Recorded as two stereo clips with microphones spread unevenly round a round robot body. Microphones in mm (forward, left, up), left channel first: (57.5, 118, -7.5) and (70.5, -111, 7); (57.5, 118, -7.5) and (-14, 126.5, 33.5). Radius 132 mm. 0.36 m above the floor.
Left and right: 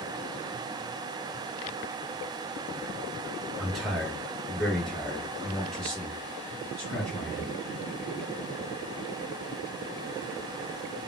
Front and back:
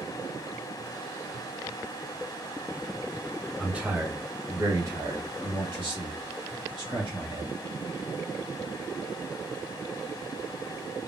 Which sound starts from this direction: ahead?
A man speaking, at 3.6 s.